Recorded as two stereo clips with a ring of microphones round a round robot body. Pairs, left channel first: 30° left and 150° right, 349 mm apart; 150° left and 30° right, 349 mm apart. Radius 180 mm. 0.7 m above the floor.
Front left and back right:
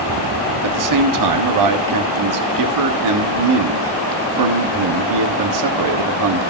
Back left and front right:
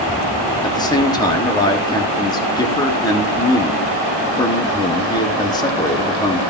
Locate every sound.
0.6 s a man speaking: 135° right, 1.4 m